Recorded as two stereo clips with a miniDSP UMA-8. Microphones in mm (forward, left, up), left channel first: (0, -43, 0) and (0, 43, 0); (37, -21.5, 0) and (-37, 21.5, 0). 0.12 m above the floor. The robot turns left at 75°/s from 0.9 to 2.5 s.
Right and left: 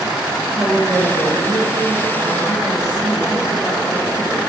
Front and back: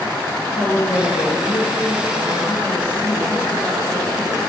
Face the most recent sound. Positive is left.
turn(degrees=-140)